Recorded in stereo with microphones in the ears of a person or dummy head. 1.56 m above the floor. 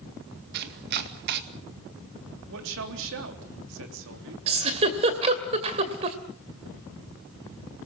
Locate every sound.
0.5 s chopping: 55° right (ahead or behind), 2 m
2.5 s a man speaking: 70° right (ahead or behind), 3 m
4.5 s a giggle: 35° right (ahead or behind), 2 m